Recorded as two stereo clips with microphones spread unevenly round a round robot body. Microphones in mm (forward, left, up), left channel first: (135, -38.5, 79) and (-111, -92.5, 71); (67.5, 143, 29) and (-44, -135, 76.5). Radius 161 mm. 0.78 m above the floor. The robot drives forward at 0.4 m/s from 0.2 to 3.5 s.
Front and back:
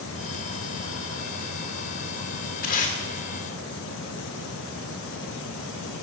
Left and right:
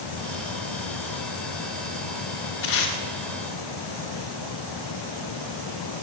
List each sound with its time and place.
2.6 s tape being pulled: 60° left, 1.2 m; by 3.0 s 70° left, 1.2 m